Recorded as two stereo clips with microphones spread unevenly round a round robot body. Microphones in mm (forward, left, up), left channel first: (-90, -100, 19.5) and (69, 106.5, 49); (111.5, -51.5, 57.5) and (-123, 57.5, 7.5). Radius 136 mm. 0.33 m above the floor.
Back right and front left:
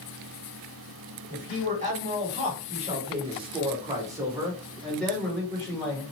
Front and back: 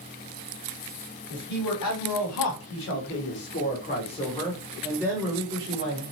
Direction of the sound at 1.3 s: 10° right.